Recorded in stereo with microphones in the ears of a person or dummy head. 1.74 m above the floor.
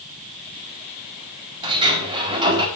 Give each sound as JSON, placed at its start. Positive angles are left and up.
{"t": 1.6, "sound": "a sliding door", "side_deg": -25, "distance_m": 4.0}